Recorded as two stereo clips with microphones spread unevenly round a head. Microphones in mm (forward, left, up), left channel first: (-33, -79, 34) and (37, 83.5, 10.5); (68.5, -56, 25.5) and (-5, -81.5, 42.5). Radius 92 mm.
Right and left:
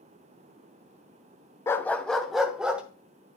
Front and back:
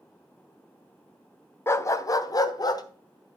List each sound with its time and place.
1.7 s a dog barking: 45° right, 0.6 m; by 2.8 s 20° right, 1.3 m